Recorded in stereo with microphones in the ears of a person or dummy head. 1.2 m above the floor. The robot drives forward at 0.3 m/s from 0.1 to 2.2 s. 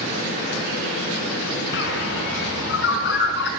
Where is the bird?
65° left (ahead or behind), 5 m.